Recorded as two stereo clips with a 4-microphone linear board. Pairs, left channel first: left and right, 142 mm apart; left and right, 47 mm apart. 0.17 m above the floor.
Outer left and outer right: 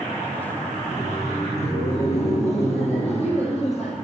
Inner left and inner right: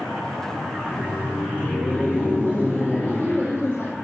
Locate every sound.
0.8 s laughter: 45° left (ahead or behind), 8.5 m